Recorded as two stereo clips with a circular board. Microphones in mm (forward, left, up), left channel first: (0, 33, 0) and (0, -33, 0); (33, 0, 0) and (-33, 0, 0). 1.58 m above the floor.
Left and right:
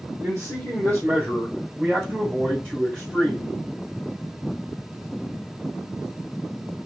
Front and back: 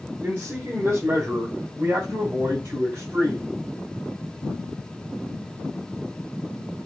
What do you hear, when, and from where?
0.2 s a man speaking: 125° right, 1.4 m; by 3.5 s 150° right, 3 m